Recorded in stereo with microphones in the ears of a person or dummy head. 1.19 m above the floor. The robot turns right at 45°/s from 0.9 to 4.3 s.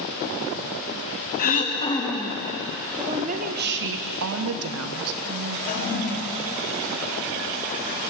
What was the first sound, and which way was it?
Throat clearing, 130° left.